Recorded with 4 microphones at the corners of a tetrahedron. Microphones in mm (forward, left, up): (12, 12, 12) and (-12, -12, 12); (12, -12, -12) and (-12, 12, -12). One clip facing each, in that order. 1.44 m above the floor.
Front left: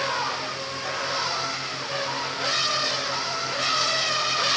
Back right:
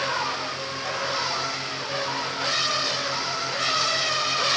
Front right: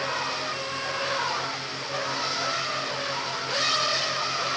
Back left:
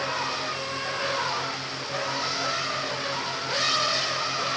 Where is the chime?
No chime in this recording.